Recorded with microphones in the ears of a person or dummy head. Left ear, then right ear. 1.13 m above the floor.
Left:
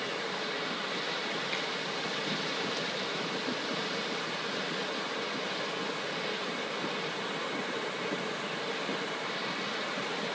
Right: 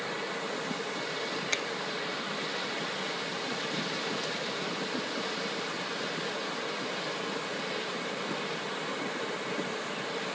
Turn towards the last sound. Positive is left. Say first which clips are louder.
# right 5 dB
turn(degrees=-50)  # may be behind; listen again after turning